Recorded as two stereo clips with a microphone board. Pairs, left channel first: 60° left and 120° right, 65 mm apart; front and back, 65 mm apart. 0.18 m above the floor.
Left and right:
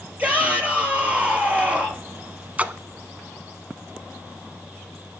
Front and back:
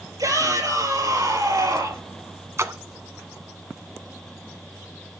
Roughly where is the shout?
Behind.